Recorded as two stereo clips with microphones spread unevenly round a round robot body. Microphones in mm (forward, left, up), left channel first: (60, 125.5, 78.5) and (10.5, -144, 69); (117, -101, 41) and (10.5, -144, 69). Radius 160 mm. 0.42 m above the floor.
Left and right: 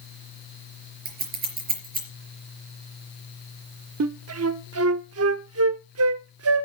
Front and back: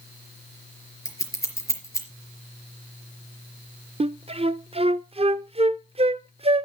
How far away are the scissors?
About 4 m.